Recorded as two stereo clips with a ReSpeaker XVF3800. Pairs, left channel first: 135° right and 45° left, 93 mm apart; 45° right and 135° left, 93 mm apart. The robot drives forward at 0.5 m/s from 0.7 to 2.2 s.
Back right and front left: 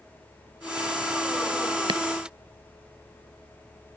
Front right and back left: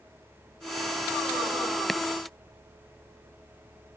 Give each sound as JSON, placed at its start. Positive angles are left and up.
{"t": 1.9, "sound": "chopping", "azimuth_deg": 45}